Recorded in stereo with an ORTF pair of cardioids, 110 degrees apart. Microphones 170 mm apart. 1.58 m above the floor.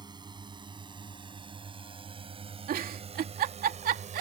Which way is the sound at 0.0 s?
25° right.